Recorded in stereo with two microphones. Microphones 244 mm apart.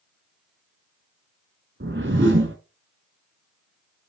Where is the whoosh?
50° right (ahead or behind), 1.0 m.